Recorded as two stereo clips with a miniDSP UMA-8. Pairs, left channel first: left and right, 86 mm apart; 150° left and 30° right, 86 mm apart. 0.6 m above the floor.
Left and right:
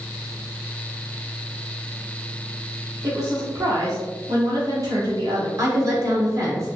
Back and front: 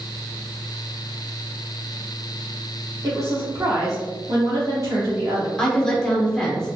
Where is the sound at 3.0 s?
70° right, 1.4 m.